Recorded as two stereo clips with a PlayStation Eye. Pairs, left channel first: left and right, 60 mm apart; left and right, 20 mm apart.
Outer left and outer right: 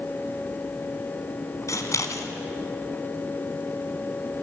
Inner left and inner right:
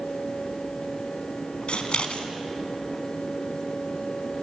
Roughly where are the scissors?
Left.